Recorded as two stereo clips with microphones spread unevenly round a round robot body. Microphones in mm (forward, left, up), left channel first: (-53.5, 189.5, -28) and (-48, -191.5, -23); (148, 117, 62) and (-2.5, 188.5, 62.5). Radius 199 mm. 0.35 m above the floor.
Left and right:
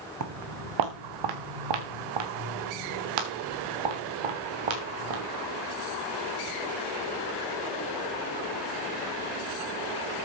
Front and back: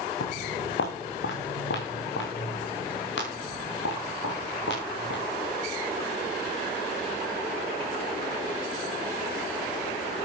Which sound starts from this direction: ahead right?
Footsteps, at 0.2 s.